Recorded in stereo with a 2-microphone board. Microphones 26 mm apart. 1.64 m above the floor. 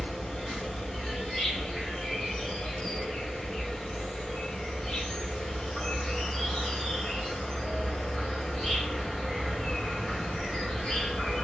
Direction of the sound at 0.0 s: 35° left (ahead or behind).